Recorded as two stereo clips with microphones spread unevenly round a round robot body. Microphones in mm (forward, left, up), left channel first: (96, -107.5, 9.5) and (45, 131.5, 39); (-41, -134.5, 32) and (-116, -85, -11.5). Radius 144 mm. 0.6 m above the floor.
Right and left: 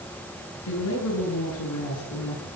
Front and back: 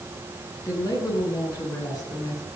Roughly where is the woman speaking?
Right.